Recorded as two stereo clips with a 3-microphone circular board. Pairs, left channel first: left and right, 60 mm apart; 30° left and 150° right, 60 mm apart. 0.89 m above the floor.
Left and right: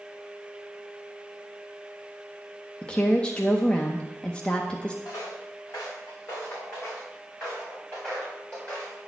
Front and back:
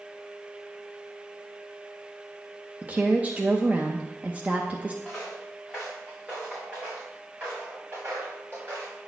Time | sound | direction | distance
2.8 | a woman speaking | 160° left | 0.6 m
5.0 | footsteps | 125° left | 3.5 m